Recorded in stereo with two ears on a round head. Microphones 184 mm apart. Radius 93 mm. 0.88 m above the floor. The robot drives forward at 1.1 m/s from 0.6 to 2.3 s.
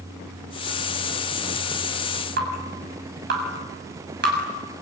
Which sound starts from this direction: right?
Dripping, at 2.4 s.